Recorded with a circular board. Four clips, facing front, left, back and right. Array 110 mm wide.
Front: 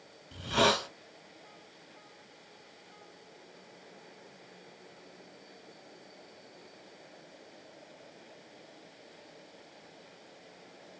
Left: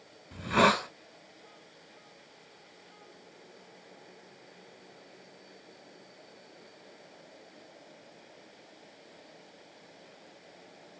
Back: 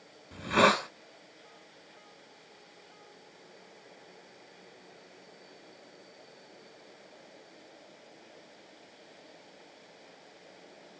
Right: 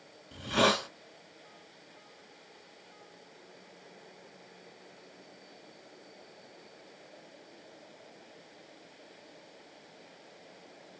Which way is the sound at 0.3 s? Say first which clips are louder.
Left 3 dB, back 3 dB; 140° left.